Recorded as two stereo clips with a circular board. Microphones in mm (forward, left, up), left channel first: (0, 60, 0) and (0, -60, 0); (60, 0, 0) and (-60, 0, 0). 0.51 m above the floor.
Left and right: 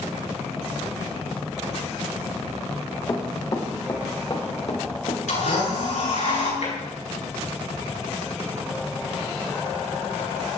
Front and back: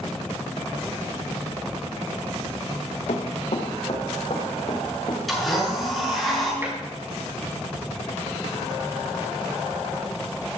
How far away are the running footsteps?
About 3.5 m.